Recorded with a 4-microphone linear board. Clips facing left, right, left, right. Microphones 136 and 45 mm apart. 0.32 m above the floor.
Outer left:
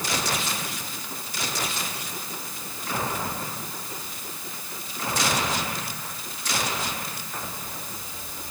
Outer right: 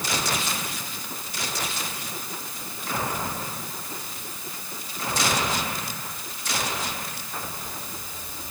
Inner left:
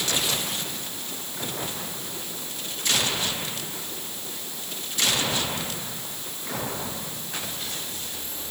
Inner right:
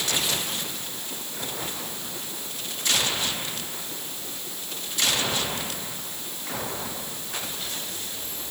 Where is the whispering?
No whispering in this recording.